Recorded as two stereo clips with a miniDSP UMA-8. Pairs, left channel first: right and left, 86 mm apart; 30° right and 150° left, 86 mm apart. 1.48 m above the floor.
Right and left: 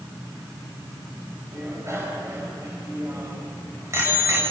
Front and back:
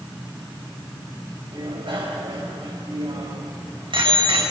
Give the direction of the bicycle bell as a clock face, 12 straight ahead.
7 o'clock.